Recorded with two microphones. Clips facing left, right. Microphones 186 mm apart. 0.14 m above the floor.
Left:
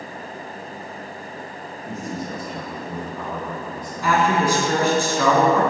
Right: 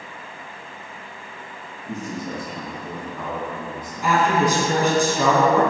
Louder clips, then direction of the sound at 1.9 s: Right 1 dB; 10° left (ahead or behind).